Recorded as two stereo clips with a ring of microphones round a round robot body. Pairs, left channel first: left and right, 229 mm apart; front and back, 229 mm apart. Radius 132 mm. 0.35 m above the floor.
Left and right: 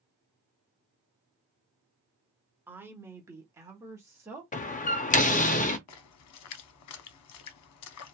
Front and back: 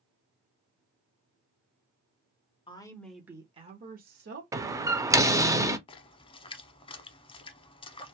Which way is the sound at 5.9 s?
70° left.